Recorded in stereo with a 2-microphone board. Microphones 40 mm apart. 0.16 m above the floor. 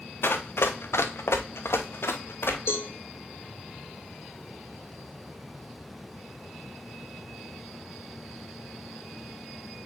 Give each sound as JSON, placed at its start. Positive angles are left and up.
{"t": 0.2, "sound": "running footsteps", "side_deg": 60, "distance_m": 1.5}
{"t": 2.7, "sound": "a cowbell", "side_deg": 70, "distance_m": 1.7}